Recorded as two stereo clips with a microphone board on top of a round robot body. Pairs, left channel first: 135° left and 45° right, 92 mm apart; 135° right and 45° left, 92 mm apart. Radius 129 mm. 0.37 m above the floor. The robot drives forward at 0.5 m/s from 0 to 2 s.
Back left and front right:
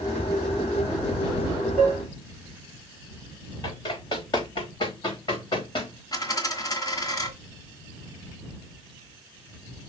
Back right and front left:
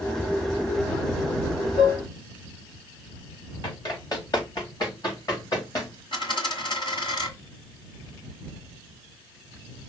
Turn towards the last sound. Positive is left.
turn(degrees=-170)